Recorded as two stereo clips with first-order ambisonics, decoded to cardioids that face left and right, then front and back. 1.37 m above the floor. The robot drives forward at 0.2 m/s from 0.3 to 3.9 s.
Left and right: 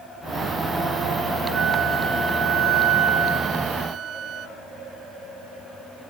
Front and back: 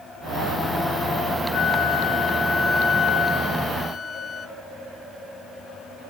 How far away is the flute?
About 0.8 m.